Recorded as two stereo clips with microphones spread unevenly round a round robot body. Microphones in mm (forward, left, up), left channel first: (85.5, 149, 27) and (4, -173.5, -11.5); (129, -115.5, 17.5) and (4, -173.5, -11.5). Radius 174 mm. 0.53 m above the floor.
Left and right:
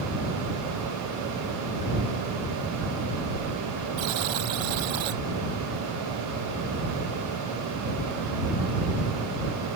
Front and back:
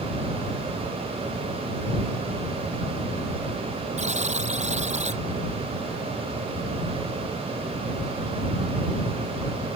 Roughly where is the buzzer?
Behind right.